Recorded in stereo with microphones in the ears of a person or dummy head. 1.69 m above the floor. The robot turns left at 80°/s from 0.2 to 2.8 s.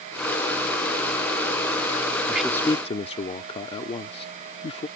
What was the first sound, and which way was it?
A man speaking, 175° right.